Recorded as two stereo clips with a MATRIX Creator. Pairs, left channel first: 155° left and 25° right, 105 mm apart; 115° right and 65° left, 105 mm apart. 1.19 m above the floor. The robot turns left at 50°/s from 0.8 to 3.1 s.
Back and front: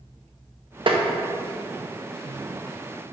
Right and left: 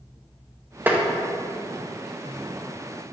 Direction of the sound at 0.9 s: Straight ahead.